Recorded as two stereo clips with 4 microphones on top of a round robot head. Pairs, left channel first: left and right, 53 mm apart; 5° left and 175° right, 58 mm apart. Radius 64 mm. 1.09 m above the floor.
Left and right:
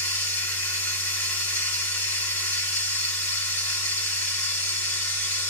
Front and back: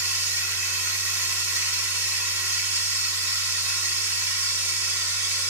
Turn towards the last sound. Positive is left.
turn(degrees=145)